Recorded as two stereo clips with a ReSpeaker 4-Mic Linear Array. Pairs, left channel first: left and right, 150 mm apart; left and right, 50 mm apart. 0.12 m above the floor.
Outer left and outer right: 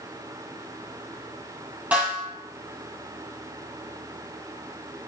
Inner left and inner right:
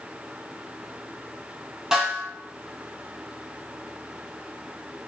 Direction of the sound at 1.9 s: 10° right (ahead or behind).